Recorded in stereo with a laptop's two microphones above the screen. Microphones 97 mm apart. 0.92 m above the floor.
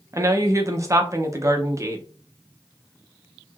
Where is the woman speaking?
35° right (ahead or behind), 0.6 m.